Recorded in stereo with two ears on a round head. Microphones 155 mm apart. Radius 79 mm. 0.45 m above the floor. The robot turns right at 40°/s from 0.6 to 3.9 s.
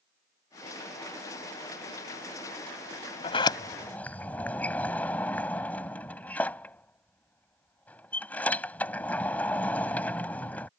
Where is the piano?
No piano in this recording.